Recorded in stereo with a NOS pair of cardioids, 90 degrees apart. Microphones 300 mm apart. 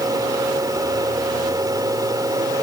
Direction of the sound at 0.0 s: 10° right.